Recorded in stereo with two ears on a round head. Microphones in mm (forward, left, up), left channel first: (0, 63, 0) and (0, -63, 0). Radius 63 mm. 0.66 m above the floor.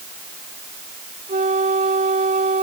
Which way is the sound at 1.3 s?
50° right (ahead or behind).